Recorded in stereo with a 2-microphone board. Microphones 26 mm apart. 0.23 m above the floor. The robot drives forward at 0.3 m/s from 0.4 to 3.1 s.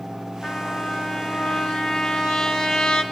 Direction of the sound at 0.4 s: 15° left (ahead or behind).